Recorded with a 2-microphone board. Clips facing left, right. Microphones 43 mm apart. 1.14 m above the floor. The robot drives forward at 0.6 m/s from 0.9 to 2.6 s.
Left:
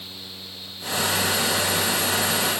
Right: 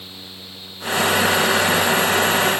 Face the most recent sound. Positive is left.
No sound to turn to.